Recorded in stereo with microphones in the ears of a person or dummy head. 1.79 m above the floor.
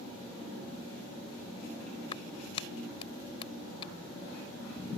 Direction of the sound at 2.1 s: 30° left (ahead or behind).